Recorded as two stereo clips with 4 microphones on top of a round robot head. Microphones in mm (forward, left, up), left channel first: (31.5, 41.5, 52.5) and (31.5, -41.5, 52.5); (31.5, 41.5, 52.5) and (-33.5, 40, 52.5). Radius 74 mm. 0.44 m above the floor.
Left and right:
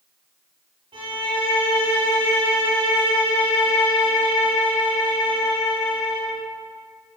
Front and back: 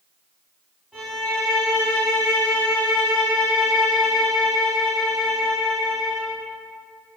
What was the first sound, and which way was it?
A violin, 90° right.